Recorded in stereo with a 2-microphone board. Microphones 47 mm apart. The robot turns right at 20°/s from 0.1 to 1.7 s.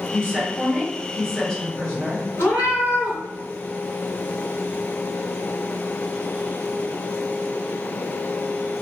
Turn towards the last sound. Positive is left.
turn(degrees=70)  # may be behind; listen again after turning